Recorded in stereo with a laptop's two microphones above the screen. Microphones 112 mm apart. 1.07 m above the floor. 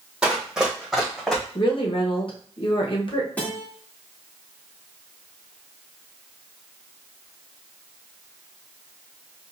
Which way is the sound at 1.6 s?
50° left (ahead or behind).